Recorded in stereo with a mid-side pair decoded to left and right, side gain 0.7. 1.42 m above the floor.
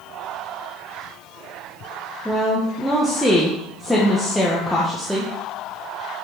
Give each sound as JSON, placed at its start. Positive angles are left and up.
{"t": 2.2, "sound": "a woman speaking", "azimuth_deg": 5, "distance_m": 1.3}